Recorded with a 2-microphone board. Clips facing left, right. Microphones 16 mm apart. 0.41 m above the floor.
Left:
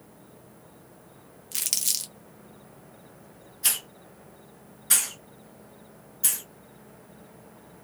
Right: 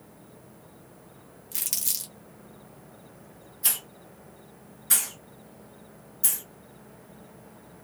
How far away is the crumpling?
About 0.8 m.